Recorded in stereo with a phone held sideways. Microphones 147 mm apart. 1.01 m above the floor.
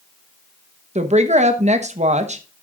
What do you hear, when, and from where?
0.9 s a woman speaking: 50° right (ahead or behind), 1.0 m